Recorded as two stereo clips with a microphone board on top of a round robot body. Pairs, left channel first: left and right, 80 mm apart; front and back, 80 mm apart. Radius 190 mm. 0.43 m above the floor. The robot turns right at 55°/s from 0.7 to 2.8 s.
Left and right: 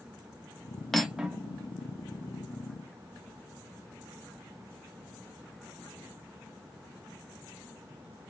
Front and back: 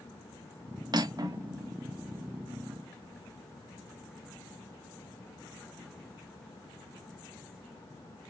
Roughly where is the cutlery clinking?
Behind.